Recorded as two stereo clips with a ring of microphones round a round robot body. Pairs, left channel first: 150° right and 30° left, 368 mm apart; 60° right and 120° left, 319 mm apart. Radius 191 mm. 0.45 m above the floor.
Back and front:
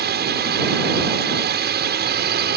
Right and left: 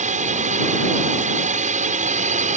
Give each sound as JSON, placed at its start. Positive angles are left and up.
{"t": 0.0, "sound": "a drone", "azimuth_deg": 70}